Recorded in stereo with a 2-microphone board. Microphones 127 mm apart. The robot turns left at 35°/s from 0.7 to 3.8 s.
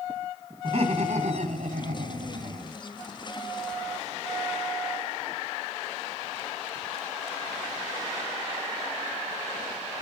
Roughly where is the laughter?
Ahead right.